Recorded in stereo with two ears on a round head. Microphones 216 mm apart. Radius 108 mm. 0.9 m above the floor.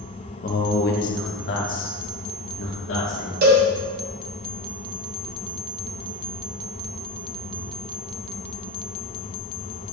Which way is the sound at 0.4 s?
30° left (ahead or behind).